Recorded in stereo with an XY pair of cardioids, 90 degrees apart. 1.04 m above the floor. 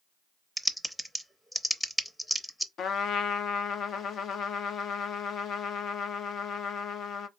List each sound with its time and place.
0.6 s typing on a keyboard: 5° left, 0.6 m
2.8 s a trumpet: 70° left, 0.6 m